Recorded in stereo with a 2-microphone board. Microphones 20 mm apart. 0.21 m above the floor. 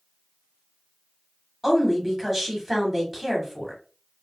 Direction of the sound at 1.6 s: 10° right (ahead or behind).